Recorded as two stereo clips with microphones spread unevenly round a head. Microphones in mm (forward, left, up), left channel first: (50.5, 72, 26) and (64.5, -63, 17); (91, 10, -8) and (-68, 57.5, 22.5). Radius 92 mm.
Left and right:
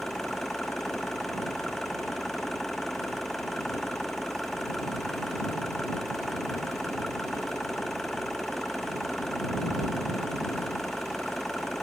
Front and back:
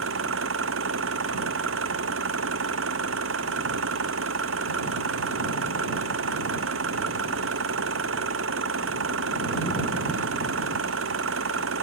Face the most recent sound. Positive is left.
turn(degrees=-175)